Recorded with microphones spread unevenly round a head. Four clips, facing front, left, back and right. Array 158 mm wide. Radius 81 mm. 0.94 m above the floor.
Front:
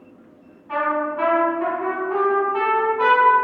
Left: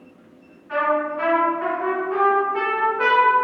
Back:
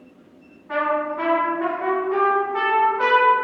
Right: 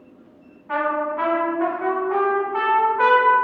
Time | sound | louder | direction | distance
0.7 | a trumpet | left 1 dB, even | 100° right | 1.7 m